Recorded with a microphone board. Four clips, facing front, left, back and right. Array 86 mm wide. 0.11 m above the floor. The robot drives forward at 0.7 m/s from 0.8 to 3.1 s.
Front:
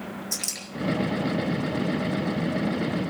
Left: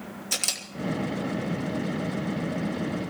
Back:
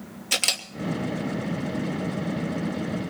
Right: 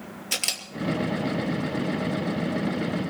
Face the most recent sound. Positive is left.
turn(degrees=-170)